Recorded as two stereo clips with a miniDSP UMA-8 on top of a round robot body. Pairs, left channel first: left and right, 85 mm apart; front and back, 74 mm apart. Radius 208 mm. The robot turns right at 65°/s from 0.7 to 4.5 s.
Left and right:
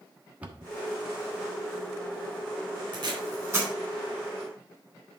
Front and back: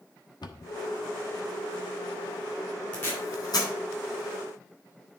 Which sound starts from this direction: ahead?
A cupboard door, at 0.4 s.